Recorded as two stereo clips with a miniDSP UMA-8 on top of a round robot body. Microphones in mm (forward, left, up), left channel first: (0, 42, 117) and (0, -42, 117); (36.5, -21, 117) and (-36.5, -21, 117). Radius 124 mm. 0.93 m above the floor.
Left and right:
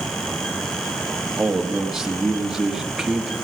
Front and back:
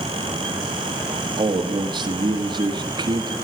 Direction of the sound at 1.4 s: 175° right.